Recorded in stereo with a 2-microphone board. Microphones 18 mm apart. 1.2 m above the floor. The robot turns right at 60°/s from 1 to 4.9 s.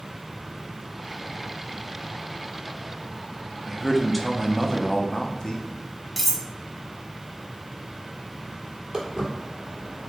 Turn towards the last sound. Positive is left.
turn(degrees=-50)  # may be behind; listen again after turning